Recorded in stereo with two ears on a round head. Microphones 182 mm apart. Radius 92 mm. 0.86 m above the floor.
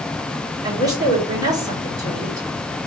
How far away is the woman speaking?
About 3 m.